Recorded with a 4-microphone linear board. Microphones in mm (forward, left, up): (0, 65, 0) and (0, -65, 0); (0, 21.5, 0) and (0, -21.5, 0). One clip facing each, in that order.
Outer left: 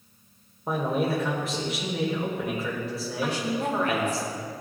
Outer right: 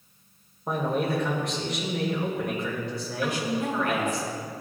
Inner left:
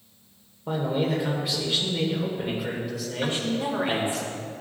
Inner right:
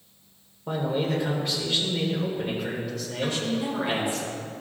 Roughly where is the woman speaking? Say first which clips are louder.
Even, even; left.